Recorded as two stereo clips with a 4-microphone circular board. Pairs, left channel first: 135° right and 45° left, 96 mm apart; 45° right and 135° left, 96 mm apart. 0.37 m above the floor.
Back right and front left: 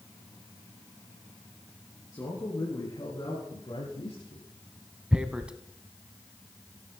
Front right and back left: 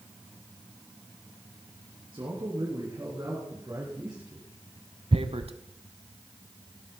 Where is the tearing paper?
125° left, 0.9 m.